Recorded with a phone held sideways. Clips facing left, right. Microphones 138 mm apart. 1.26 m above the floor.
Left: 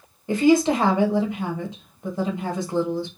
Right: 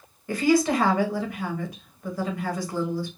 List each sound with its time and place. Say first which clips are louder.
0.3 s a woman speaking: left 4 dB; 25° left (ahead or behind), 0.6 m